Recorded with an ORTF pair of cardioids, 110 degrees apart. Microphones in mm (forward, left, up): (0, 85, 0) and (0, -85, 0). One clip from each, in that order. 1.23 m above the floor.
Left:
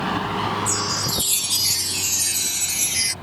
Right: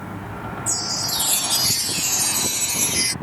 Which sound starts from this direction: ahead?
A chime, at 0.7 s.